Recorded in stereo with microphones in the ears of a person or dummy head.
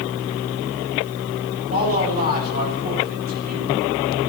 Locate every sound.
1.7 s a man speaking: 45° right (ahead or behind), 6 m